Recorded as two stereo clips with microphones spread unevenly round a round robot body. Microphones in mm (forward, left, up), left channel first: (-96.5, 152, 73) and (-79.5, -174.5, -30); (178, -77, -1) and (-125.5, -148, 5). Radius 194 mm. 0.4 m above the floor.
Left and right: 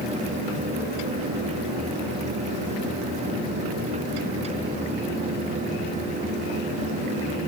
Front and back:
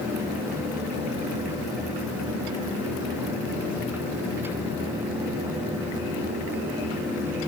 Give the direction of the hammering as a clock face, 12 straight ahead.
I don't hear hammering.